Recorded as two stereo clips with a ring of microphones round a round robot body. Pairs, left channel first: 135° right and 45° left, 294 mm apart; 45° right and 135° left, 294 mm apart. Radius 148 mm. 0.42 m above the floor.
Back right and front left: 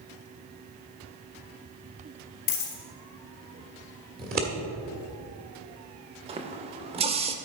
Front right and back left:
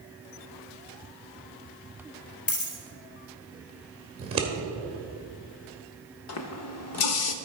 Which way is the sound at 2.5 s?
105° right.